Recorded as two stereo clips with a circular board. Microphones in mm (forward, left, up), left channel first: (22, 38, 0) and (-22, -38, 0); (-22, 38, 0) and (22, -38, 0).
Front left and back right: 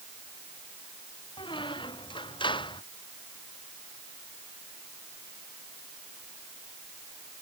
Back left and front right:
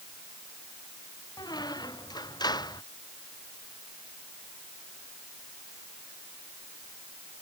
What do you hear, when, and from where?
1.4 s a squeak: 85° left